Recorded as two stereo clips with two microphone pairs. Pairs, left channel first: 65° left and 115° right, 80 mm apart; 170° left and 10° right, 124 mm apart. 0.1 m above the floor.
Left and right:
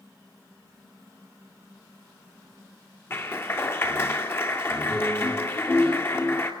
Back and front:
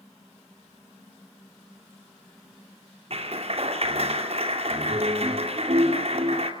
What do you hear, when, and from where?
3.1 s a clap: 10° left, 2 m